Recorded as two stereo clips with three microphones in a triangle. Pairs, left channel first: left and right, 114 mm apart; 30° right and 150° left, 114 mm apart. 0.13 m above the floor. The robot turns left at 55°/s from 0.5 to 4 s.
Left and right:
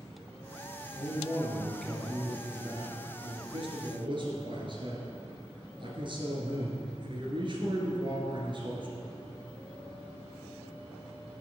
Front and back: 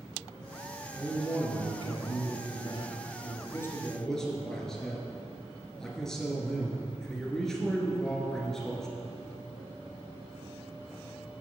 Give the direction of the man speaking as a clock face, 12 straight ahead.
10 o'clock.